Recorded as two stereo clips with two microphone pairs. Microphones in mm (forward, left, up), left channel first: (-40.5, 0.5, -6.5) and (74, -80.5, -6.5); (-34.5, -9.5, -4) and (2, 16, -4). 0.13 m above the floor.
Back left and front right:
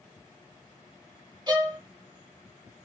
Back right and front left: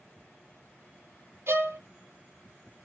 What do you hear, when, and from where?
1.5 s a violin: 20° left, 1.0 m